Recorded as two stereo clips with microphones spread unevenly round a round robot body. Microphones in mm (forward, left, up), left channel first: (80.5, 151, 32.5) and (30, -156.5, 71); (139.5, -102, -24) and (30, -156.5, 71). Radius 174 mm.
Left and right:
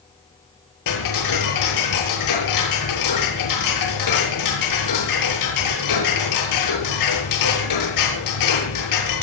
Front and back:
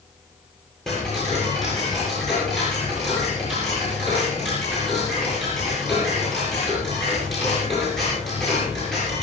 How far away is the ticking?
About 7.5 m.